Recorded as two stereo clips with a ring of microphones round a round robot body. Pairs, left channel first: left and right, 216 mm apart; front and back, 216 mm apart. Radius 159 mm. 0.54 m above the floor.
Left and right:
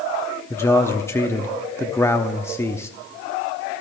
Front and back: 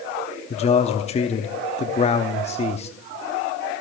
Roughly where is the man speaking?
Ahead.